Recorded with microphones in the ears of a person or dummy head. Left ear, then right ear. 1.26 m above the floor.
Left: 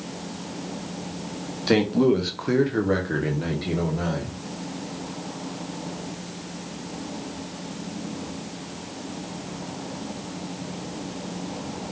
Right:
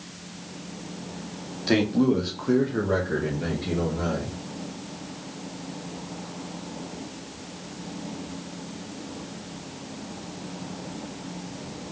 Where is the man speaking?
5° left (ahead or behind), 0.9 m; by 4.3 s 40° left (ahead or behind), 2 m.